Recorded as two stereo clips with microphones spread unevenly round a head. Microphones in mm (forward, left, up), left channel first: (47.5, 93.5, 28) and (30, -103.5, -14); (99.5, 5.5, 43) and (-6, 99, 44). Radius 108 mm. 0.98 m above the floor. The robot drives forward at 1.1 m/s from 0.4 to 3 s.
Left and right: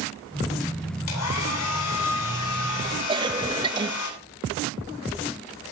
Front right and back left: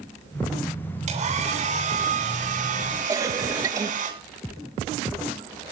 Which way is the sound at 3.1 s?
155° right.